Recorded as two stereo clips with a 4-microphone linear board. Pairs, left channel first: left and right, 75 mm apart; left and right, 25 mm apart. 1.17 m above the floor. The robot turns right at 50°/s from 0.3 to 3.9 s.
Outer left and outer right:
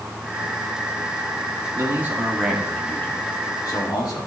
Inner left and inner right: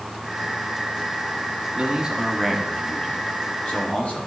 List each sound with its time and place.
1.8 s a man speaking: 35° right, 2.5 m; by 4.3 s 70° left, 2.5 m